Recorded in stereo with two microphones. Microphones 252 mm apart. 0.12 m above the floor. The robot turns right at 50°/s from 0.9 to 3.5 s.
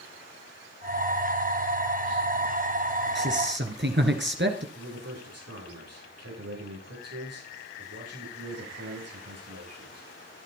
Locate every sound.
3.1 s a man speaking: 45° right (ahead or behind), 2 m
4.8 s a man speaking: 70° right (ahead or behind), 9 m